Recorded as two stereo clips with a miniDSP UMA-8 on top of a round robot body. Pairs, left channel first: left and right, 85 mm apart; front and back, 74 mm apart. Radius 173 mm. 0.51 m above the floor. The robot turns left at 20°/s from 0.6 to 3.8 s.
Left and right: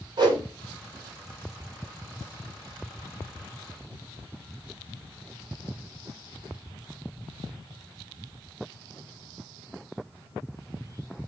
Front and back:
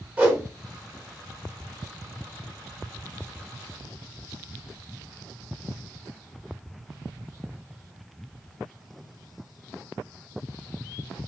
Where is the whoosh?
115° right, 1.7 m.